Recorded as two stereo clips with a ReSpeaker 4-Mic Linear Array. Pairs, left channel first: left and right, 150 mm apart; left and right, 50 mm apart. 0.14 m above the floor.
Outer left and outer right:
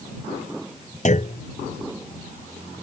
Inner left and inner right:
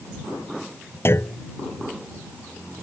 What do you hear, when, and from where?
1.1 s a clunk: 55° left (ahead or behind)